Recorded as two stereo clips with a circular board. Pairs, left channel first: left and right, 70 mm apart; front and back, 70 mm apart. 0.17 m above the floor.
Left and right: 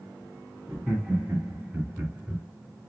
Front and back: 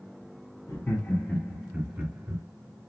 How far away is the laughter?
About 1.2 m.